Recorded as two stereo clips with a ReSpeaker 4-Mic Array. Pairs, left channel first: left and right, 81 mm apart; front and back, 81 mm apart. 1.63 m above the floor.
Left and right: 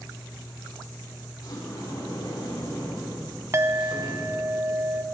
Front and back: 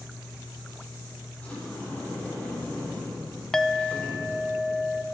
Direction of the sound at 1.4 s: 70° left.